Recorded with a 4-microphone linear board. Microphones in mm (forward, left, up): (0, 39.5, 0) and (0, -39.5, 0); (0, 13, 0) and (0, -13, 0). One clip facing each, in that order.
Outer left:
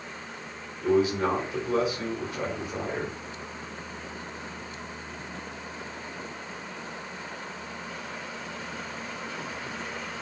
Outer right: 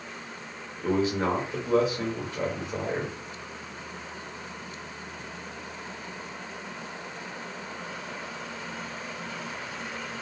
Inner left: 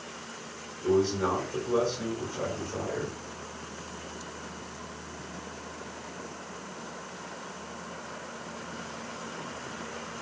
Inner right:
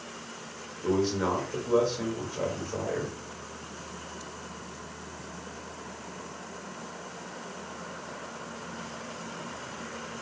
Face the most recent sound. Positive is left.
turn(degrees=-30)  # may be behind; listen again after turning